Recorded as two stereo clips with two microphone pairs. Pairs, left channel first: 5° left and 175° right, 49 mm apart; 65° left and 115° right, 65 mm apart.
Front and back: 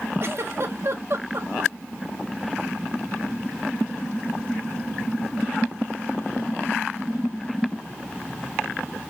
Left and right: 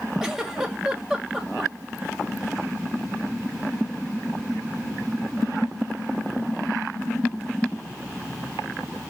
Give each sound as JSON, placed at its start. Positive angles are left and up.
{"t": 0.2, "sound": "a giggle", "azimuth_deg": 165, "distance_m": 1.4}